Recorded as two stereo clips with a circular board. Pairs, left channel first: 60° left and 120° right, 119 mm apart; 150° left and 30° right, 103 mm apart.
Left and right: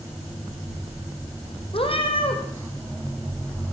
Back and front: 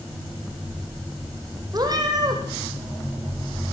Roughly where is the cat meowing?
Ahead.